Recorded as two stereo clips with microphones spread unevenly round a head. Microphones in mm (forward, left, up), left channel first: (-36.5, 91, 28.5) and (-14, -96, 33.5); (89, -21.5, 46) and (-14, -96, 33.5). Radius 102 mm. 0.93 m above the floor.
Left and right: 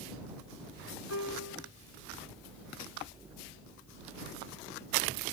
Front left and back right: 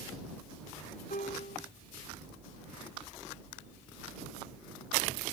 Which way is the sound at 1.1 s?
85° left.